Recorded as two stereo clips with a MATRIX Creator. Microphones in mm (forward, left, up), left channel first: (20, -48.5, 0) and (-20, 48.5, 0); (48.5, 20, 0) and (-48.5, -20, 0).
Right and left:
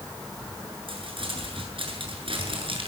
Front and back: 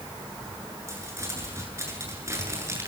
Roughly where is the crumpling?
Behind left.